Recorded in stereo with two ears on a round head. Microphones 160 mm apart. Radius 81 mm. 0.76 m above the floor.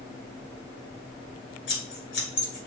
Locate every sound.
1.7 s scissors: 75° left (ahead or behind), 2 m